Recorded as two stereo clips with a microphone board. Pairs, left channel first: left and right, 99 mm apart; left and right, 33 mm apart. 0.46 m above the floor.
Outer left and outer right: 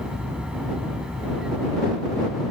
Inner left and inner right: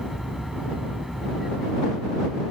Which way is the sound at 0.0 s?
10° right (ahead or behind).